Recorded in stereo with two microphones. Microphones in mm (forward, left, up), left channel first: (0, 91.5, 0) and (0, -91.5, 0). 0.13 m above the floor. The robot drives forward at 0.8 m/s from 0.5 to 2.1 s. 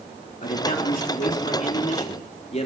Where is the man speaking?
50° left (ahead or behind), 3 m; by 2.7 s 40° left (ahead or behind), 3.5 m.